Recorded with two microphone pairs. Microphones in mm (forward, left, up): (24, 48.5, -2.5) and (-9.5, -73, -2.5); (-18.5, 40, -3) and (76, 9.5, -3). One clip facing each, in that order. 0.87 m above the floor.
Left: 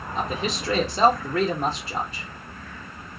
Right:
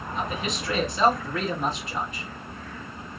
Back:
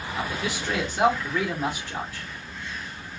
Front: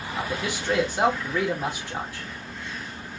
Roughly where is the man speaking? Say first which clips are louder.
Left 3 dB, front 1 dB; ahead left.